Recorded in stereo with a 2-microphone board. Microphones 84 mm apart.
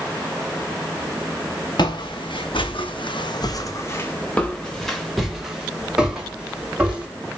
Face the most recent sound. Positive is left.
turn(degrees=-10)  # may be behind; listen again after turning